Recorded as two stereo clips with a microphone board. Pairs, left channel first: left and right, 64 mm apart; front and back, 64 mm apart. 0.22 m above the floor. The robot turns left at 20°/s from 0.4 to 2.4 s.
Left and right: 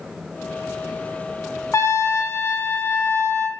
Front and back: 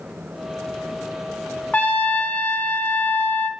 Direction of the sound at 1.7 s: 65° left.